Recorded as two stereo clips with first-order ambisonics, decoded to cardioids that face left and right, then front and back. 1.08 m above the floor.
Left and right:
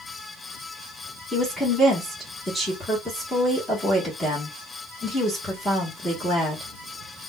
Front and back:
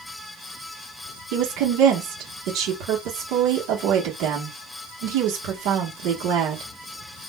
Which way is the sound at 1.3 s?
175° left.